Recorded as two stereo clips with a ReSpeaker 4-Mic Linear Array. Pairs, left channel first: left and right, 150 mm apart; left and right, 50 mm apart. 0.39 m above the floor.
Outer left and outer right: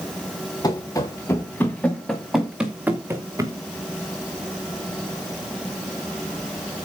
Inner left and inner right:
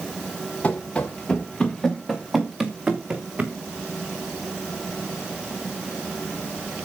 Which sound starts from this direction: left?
Running footsteps, at 0.6 s.